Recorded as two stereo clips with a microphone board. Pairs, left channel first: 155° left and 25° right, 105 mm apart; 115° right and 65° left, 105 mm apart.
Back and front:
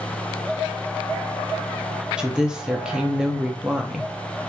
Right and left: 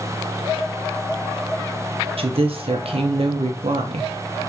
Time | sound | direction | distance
2.2 | a woman speaking | 60° left | 0.7 m